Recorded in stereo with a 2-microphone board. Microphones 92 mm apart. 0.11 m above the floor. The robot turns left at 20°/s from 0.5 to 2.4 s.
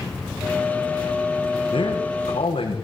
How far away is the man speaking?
About 7 m.